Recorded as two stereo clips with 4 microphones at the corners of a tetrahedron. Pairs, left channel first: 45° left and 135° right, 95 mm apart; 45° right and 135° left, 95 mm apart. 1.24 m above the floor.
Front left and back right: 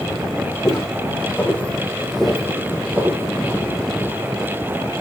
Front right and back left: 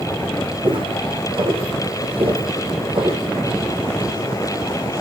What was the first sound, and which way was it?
Footsteps, 105° left.